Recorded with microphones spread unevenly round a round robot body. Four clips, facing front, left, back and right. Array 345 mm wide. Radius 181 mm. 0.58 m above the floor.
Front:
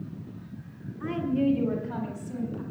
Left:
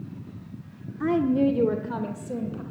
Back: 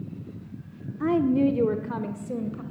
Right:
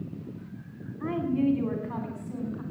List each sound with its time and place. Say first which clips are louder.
1.0 s a woman speaking: left 5 dB, back 5 dB; 125° left, 1.5 m; by 2.6 s 145° left, 3 m